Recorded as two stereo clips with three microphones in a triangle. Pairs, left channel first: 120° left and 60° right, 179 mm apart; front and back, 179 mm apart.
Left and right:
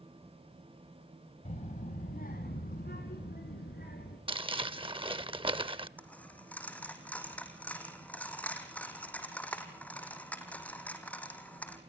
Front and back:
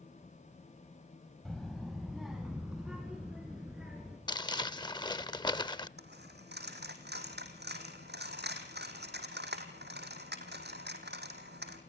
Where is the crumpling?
40° right, 0.6 m.